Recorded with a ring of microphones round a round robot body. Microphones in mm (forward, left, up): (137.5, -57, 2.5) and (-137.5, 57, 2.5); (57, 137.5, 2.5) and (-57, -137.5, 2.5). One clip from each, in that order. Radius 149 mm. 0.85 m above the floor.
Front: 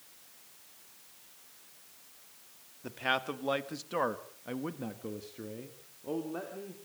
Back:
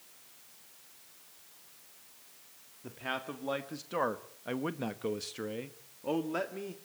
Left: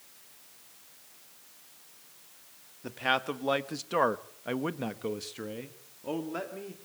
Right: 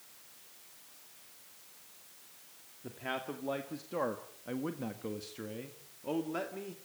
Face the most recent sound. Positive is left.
turn(degrees=160)